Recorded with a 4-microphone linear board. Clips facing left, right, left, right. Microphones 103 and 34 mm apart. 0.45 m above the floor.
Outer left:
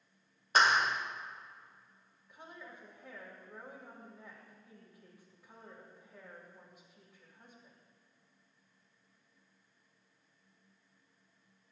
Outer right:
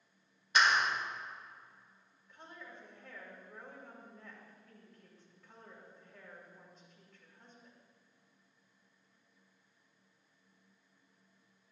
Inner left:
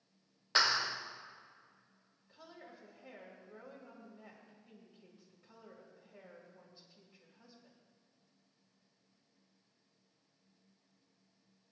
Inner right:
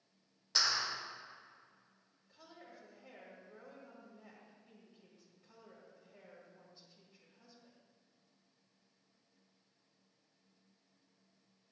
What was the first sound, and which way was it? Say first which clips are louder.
A clap: outer left 2 dB, inner left 4 dB; 45° left (ahead or behind).